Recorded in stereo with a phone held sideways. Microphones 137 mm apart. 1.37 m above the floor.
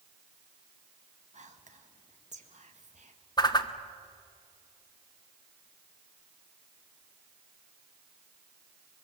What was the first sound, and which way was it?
Whispering, 60° right (ahead or behind).